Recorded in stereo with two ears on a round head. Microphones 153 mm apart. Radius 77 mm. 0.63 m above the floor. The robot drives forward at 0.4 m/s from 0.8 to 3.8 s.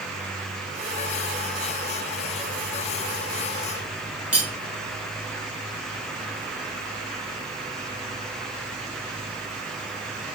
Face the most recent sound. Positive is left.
turn(degrees=-10)  # may be behind; listen again after turning